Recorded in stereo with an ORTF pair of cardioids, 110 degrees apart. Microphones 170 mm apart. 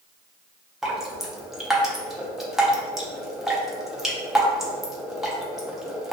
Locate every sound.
0.8 s dripping: straight ahead, 0.5 m